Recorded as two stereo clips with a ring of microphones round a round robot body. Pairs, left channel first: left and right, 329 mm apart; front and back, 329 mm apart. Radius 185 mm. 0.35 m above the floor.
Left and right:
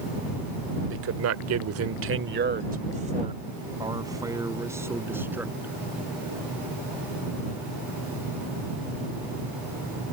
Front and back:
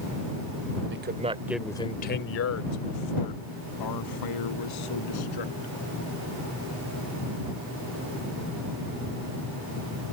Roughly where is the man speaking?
Behind right.